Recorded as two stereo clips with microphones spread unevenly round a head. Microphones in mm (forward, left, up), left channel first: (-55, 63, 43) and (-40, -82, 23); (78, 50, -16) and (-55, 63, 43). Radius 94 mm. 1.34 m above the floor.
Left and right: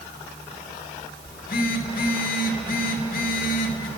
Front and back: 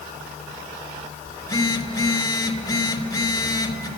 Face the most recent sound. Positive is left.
turn(degrees=60)